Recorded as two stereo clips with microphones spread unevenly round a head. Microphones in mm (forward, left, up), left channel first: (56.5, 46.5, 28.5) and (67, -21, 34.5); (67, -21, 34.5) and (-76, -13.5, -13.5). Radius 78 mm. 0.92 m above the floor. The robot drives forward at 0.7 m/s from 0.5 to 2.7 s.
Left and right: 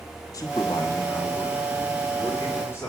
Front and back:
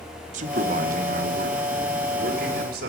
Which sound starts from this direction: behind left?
A man speaking, at 0.3 s.